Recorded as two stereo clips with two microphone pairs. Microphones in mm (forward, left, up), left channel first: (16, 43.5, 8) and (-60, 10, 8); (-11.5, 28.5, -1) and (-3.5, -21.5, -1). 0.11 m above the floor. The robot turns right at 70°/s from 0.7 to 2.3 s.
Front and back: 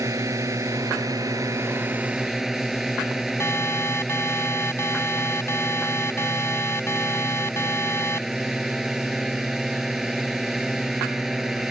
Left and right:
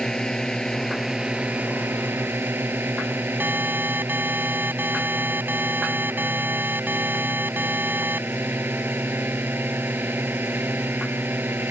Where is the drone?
175° left; by 11.7 s 70° right.